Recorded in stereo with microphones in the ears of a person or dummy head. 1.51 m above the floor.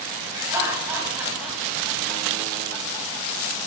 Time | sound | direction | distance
0.3 | laughter | 20° right (ahead or behind) | 2.5 m